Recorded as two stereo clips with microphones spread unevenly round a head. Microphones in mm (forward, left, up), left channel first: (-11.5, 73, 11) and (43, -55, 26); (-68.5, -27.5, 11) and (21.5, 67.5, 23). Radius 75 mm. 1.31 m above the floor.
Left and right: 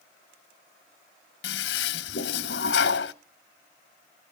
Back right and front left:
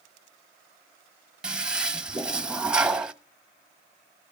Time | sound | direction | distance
1.4 | a toilet flushing | 130° left | 0.8 m